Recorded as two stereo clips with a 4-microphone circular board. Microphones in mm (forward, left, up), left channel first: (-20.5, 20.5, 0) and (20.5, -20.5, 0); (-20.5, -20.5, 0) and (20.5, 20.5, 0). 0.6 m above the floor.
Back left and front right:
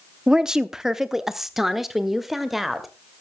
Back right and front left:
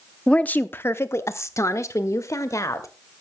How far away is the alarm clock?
No alarm clock in this recording.